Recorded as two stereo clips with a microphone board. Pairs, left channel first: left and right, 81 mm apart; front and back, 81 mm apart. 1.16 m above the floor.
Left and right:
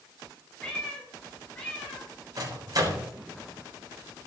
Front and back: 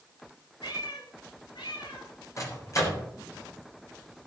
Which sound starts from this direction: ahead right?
A microwave, at 2.4 s.